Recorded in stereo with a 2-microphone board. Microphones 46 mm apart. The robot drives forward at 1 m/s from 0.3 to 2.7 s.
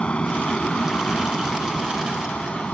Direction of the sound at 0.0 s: 30° left (ahead or behind).